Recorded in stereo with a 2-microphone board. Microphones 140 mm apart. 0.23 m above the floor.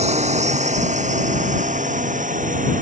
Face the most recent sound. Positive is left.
turn(degrees=-70)  # may be behind; listen again after turning